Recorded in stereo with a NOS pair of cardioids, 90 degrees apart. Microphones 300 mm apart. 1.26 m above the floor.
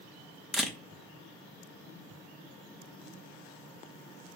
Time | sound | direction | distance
0.5 | a camera shutter | straight ahead | 0.8 m